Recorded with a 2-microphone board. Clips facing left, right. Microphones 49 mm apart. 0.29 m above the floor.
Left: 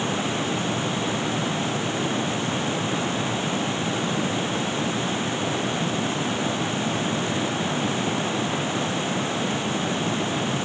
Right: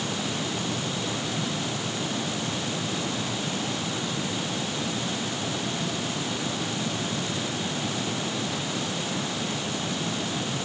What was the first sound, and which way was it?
Only background noise.